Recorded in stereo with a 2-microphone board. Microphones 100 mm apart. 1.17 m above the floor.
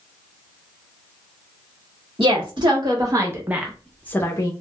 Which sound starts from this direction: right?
A woman speaking, at 2.2 s.